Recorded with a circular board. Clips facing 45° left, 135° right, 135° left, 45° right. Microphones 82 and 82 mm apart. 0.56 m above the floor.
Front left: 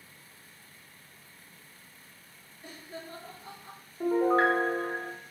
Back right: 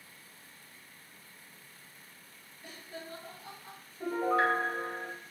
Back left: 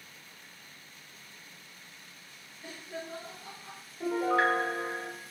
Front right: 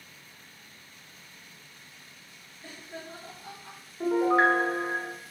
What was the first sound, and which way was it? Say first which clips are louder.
Laughter: front left 2 dB, back left 2 dB; 85° left.